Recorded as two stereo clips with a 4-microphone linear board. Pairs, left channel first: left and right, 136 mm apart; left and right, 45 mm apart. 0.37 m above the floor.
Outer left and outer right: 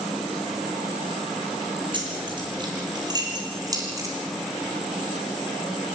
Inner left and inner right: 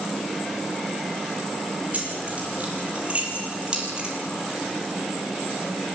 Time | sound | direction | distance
1.9 | keys jangling | 35° right (ahead or behind) | 6 m